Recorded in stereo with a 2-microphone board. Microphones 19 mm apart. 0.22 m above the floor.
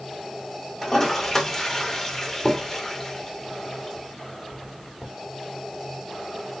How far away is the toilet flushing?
About 1.7 m.